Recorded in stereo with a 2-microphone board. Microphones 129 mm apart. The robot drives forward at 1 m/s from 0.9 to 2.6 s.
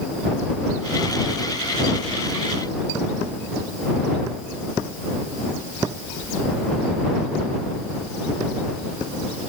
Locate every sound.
Only background noise.